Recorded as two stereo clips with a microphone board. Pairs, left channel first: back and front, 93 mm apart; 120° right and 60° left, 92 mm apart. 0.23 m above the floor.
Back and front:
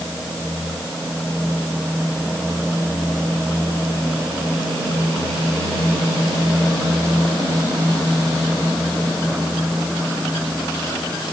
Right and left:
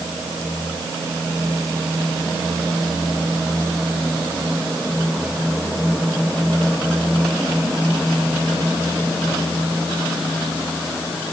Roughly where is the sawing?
I don't hear sawing.